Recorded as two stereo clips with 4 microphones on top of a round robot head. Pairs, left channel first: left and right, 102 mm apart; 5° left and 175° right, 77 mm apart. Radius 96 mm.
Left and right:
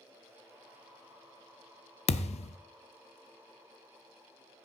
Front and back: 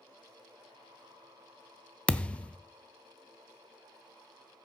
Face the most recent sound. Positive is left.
turn(degrees=80)